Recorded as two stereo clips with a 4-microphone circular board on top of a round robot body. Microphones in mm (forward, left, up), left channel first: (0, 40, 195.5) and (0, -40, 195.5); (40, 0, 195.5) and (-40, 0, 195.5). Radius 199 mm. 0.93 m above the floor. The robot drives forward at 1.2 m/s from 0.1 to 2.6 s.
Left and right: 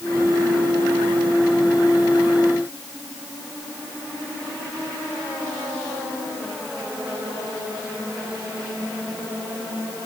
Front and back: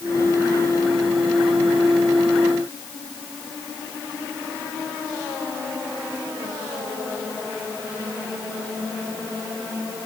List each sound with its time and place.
Only background noise.